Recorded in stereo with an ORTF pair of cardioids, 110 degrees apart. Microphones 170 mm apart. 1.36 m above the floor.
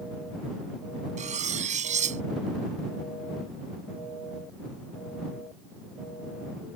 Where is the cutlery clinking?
45° right.